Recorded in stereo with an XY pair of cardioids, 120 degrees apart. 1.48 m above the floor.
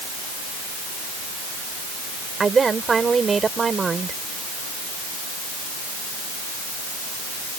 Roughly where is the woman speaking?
Ahead right.